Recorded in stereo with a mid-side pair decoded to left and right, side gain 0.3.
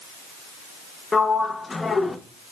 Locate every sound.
1.1 s a sliding door: 35° left, 0.5 m